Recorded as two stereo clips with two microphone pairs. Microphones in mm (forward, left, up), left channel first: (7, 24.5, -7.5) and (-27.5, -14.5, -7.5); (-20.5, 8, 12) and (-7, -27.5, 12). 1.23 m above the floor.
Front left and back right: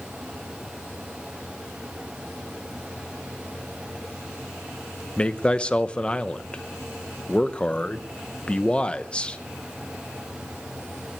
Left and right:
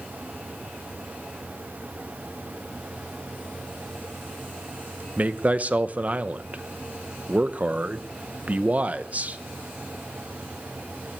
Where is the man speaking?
20° right, 0.7 m.